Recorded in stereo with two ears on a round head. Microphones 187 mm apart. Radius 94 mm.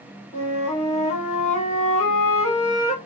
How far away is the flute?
About 1.1 m.